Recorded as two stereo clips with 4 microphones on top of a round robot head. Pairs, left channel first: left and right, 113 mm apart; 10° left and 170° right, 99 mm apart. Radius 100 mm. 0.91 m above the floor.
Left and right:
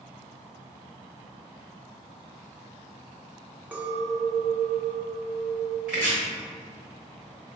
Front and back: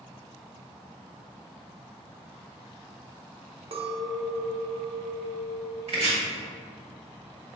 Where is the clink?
165° right, 0.6 m.